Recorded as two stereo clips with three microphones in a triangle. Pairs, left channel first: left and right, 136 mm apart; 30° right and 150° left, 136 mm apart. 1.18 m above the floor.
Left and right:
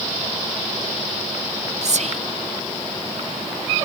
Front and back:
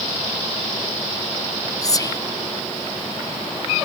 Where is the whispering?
90° right, 0.6 m.